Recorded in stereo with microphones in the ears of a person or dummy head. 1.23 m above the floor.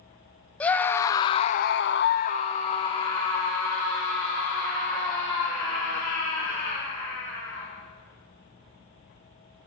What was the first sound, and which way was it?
A scream, 10° left (ahead or behind).